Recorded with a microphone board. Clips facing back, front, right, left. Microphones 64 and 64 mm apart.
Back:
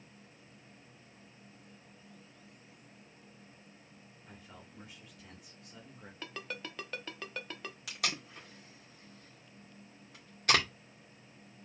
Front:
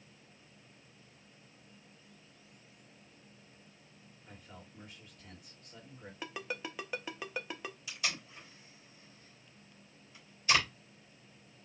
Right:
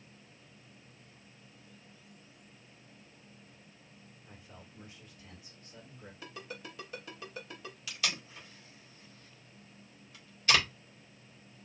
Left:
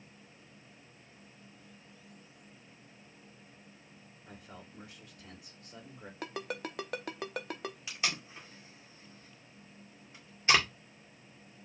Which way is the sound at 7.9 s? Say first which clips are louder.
Back 2 dB, right 1 dB; 155° left.